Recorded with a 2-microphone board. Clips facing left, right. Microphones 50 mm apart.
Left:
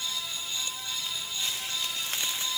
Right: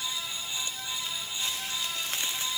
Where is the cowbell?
No cowbell in this recording.